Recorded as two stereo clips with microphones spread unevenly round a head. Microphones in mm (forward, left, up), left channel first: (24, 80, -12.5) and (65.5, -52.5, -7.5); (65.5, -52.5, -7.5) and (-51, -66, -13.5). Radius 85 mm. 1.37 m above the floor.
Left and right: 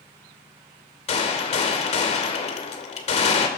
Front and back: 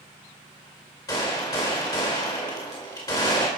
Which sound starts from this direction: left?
A gunshot, at 1.1 s.